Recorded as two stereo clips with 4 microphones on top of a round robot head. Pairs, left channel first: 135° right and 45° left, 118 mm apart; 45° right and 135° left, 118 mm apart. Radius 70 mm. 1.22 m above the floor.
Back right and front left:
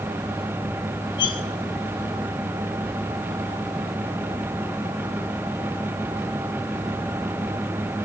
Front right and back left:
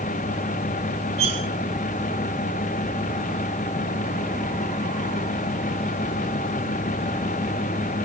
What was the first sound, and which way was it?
Cutlery clinking, 175° left.